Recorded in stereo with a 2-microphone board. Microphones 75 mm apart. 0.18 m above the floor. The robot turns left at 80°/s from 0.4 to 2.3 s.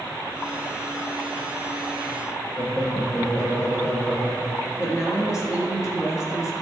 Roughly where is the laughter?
Left.